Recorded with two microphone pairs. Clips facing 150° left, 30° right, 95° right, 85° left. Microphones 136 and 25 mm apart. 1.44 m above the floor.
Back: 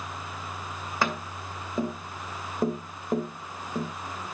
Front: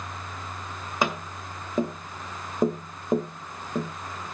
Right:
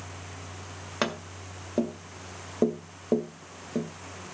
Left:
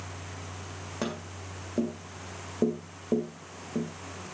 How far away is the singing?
I don't hear singing.